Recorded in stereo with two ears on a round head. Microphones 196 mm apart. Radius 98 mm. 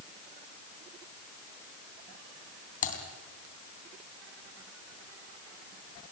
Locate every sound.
2.8 s typing on a keyboard: 40° left (ahead or behind), 3 m